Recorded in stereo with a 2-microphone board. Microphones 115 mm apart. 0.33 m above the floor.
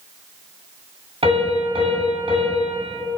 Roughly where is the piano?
Right.